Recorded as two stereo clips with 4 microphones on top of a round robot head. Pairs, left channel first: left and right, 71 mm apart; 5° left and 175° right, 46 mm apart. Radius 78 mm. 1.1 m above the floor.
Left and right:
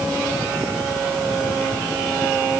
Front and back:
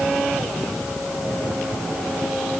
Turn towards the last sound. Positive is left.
No sound to turn to.